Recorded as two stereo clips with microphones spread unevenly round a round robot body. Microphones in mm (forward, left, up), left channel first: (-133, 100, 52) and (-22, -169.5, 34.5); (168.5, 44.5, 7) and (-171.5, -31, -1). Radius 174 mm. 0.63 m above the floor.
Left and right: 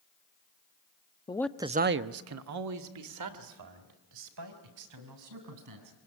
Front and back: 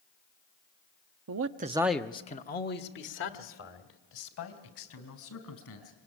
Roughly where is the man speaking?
Behind.